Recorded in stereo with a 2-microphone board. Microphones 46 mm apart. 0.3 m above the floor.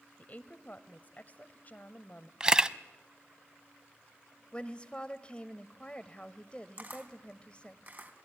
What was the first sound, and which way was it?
A woman speaking, 35° left (ahead or behind).